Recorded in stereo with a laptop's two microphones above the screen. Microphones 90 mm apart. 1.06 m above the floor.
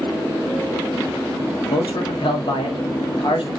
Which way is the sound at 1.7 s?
70° left (ahead or behind).